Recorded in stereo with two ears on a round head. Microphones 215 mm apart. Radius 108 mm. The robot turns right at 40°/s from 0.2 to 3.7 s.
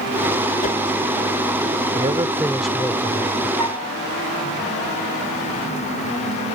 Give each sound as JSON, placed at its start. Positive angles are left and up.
{"t": 0.6, "sound": "a whoosh", "side_deg": 35}
{"t": 1.9, "sound": "a man speaking", "azimuth_deg": -30}
{"t": 3.6, "sound": "a flute", "side_deg": -80}